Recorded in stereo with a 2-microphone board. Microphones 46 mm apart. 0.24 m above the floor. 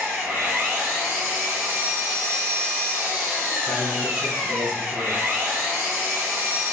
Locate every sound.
0.0 s an engine running: 65° right (ahead or behind), 1.8 m
3.7 s a man speaking: 35° right (ahead or behind), 1.9 m